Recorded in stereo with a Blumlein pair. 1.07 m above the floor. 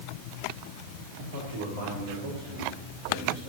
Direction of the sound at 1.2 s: 60° right.